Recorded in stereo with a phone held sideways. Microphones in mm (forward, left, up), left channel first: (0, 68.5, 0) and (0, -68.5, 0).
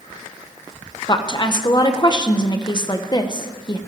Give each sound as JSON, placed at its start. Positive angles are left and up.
{"t": 1.1, "sound": "a woman speaking", "side_deg": 35, "distance_m": 1.1}